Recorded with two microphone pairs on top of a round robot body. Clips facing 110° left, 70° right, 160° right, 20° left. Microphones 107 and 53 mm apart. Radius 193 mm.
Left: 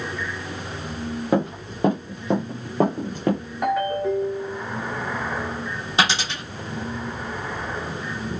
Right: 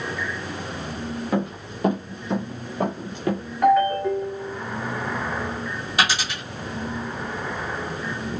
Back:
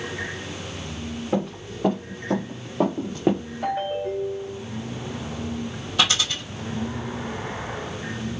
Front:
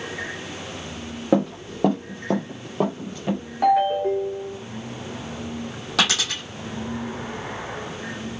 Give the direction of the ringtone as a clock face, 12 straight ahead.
11 o'clock.